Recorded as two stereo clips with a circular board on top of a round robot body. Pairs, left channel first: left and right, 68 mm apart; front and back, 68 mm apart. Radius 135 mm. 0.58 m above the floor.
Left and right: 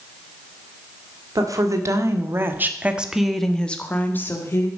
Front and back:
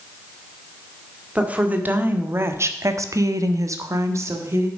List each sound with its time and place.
1.4 s a woman speaking: 110° right, 1.9 m; by 4.7 s 135° left, 1.8 m